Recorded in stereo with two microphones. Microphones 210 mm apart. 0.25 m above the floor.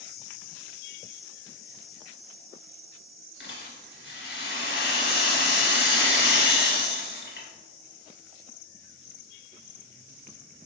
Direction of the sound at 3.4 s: 55° left (ahead or behind).